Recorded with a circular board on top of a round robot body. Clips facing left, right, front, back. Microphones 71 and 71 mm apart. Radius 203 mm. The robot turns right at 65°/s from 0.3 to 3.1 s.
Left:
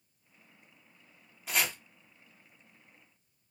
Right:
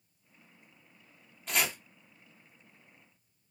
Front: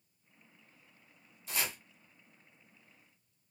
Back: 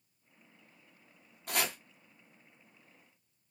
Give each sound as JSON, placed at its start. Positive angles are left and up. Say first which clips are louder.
{"t": 1.5, "sound": "chopping", "louder": "even, back 4 dB", "azimuth_deg": 170, "distance_m": 0.9}